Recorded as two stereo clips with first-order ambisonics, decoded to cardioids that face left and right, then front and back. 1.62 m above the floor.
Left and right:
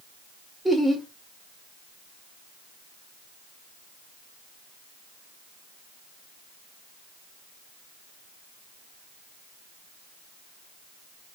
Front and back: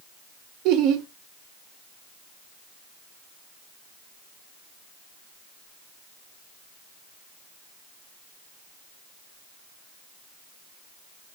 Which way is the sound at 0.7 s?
Straight behind.